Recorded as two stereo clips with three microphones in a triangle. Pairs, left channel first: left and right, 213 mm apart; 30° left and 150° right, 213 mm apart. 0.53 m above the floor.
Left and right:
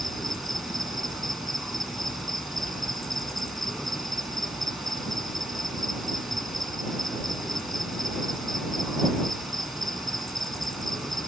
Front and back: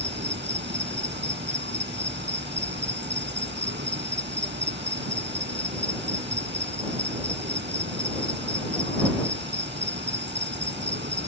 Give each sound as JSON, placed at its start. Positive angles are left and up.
{"t": 0.0, "sound": "an insect", "azimuth_deg": 180}